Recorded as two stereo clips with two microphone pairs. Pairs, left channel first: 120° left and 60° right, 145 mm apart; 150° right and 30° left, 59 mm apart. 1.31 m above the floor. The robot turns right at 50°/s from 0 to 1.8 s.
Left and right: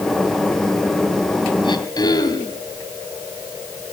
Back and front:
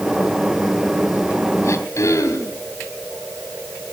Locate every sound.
1.6 s throat clearing: 175° left, 2.5 m; by 2.6 s 175° right, 2.5 m